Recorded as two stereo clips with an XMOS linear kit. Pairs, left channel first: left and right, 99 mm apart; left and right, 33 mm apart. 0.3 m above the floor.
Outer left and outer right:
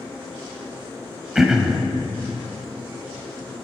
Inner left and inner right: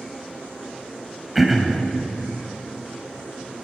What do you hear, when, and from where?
1.4 s throat clearing: 5° right (ahead or behind), 1.1 m